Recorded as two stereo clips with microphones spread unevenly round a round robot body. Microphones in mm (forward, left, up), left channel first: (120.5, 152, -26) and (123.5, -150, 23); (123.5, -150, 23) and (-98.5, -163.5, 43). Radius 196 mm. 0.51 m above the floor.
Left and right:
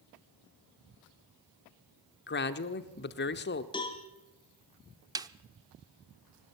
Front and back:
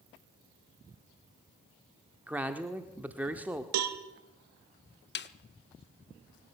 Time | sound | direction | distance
2.3 | a man speaking | 95° left | 1.0 m
3.7 | a cowbell | 170° left | 1.1 m
5.2 | a snare drum | 5° right | 1.0 m